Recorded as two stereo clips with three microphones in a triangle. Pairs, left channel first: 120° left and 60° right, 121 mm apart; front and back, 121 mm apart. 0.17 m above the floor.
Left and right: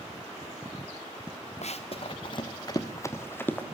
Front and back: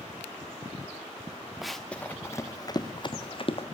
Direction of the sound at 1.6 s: 90° left.